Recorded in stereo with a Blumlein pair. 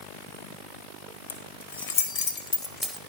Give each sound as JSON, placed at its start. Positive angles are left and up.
{"t": 1.3, "sound": "keys jangling", "azimuth_deg": 65, "distance_m": 1.5}